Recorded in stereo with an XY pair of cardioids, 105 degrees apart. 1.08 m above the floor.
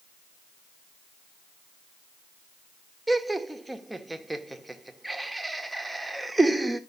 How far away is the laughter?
About 1.3 m.